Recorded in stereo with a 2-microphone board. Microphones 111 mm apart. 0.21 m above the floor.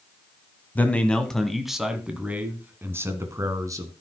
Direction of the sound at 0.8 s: 15° left (ahead or behind).